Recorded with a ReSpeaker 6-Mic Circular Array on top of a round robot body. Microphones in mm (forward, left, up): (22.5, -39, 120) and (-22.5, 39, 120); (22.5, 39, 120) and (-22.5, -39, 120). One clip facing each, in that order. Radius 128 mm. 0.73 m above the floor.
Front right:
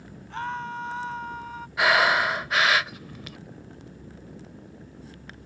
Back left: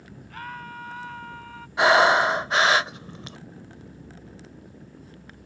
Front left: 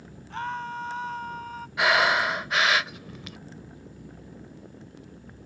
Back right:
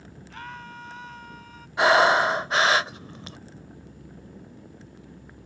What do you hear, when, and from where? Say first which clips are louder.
0.3 s a scream: front right 6 dB, front left 8 dB; 5° left; by 1.7 s 10° left
1.8 s breathing: back left 4 dB, back right 4 dB; straight behind